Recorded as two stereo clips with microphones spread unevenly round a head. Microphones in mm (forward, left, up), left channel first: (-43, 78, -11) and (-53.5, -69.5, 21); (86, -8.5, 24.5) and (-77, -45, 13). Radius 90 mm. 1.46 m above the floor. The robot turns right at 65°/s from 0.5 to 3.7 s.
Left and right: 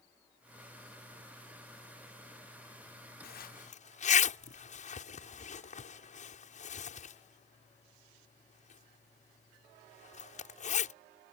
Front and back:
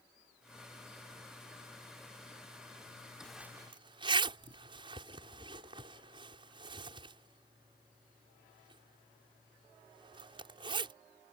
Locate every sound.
3.2 s a zipper: 95° left; by 10.9 s 125° left